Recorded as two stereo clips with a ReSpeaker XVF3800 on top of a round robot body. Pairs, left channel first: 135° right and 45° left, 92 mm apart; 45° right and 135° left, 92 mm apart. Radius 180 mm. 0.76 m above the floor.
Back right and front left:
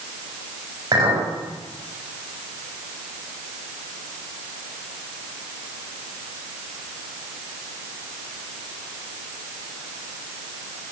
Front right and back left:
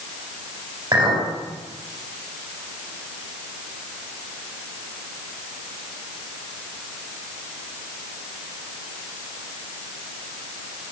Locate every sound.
0.9 s a clink: 95° left, 3.5 m